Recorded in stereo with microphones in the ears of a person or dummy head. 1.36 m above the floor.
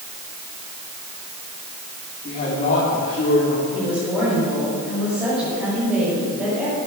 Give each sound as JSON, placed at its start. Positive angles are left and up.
{"t": 2.2, "sound": "a man speaking", "side_deg": 40, "distance_m": 4.0}
{"t": 3.7, "sound": "a woman speaking", "side_deg": -5, "distance_m": 6.5}